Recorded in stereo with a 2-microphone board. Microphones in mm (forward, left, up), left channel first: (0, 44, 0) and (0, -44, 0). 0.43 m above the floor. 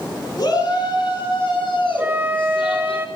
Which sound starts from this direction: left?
A shout, at 0.4 s.